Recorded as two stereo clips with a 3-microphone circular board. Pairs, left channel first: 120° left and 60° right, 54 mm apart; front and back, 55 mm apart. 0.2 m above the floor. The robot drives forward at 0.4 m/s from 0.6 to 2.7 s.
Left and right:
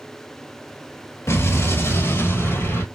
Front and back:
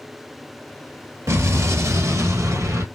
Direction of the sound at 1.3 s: 155° left.